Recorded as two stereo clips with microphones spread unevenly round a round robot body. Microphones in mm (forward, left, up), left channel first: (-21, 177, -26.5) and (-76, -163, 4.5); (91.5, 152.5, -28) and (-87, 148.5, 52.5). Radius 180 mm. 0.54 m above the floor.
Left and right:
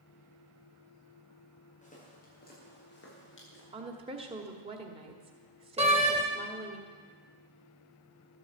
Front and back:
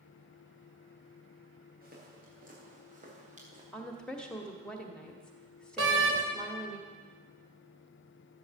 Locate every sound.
1.8 s footsteps: 150° left, 7.5 m; by 3.6 s 135° left, 7 m
3.7 s a woman speaking: 30° right, 1.4 m
5.8 s a door slam: 175° right, 1.8 m